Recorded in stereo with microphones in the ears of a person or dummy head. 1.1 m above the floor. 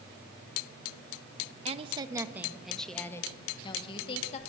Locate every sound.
1.6 s a woman speaking: 35° right (ahead or behind), 1.0 m; by 4.4 s 40° left (ahead or behind), 1.6 m